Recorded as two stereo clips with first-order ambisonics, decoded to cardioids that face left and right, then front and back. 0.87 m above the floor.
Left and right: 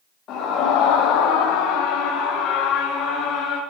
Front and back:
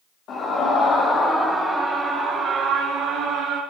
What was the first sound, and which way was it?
A scream, 45° left.